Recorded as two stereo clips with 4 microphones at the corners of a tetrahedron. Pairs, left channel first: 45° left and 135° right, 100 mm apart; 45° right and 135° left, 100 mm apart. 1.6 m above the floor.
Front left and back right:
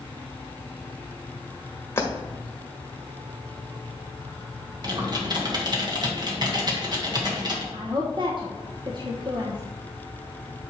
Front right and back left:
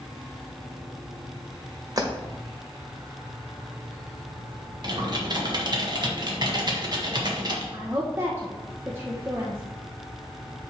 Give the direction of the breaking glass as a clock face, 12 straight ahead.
9 o'clock.